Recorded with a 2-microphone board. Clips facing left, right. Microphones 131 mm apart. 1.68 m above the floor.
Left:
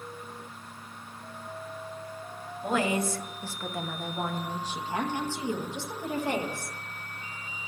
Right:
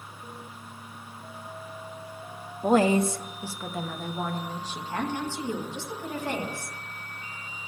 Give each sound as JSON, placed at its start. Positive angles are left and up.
{"t": 2.6, "sound": "a woman speaking", "side_deg": -45, "distance_m": 0.7}